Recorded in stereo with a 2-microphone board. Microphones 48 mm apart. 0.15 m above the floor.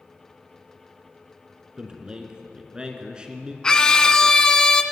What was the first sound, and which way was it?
A man speaking, 20° right (ahead or behind).